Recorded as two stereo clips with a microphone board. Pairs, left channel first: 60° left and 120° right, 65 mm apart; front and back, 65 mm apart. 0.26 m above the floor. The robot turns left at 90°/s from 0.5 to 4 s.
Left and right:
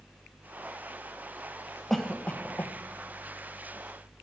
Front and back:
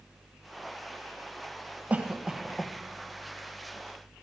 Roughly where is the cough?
Behind left.